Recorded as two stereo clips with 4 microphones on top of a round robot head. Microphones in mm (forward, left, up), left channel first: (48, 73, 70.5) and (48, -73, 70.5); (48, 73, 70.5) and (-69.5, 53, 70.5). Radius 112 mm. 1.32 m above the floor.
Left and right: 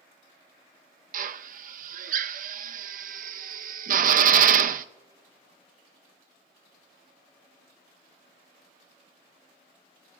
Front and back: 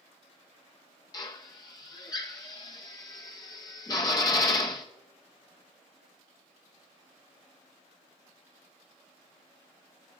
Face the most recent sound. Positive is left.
turn(degrees=-60)